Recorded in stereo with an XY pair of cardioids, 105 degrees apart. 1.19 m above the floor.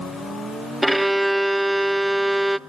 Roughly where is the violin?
Ahead.